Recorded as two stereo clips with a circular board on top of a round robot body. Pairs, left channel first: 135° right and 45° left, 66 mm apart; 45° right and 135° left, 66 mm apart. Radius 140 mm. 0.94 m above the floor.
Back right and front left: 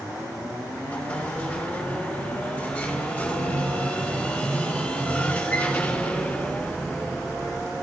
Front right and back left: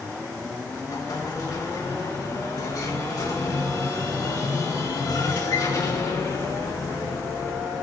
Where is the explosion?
70° right, 4 m.